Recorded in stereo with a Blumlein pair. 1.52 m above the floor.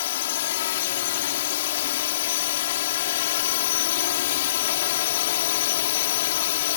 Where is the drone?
55° left.